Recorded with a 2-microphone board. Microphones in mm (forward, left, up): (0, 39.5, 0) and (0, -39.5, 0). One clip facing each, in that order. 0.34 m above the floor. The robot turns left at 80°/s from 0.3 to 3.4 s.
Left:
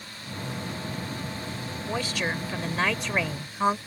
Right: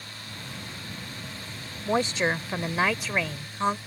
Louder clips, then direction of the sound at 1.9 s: Right 5 dB; 30° right (ahead or behind).